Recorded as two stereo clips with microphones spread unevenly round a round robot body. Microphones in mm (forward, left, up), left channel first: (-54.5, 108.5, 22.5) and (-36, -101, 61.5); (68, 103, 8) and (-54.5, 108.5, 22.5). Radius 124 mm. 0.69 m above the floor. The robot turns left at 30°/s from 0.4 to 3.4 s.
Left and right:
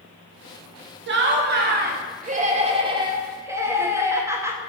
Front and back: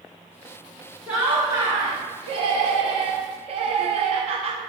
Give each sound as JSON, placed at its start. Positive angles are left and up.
{"t": 1.1, "sound": "laughter", "azimuth_deg": -100, "distance_m": 0.7}